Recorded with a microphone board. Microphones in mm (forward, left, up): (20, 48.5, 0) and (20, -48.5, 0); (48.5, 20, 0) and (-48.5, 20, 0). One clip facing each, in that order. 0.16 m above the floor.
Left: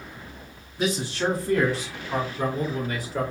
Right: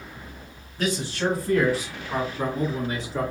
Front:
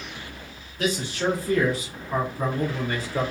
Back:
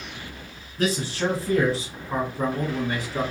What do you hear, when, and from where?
0.8 s a man speaking: 170° left, 2.0 m; by 3.3 s 115° right, 1.8 m